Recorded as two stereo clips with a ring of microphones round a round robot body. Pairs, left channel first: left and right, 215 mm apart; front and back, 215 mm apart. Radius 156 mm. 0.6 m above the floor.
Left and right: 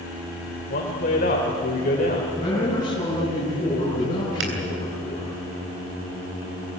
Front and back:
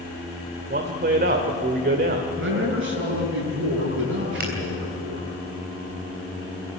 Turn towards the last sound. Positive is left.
turn(degrees=-125)